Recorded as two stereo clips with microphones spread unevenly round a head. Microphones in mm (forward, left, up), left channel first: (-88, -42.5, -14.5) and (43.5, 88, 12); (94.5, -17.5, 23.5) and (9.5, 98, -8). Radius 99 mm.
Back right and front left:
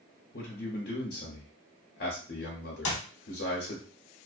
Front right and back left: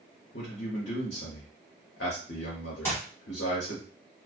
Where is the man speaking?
90° right, 0.7 m.